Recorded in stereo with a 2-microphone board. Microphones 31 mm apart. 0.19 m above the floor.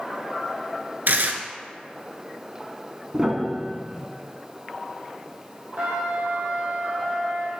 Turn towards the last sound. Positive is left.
turn(degrees=-45)  # may be behind; listen again after turning